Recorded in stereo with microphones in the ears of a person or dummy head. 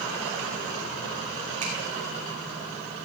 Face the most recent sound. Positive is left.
turn(degrees=-40)  # may be behind; listen again after turning